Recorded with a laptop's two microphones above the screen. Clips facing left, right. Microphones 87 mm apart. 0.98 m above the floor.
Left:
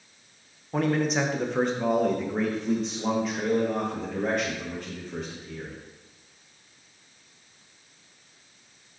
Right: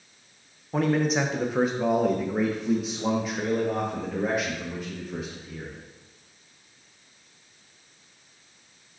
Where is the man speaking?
Centre (ahead or behind), 0.7 m; by 5.8 s 5° right (ahead or behind), 2.5 m.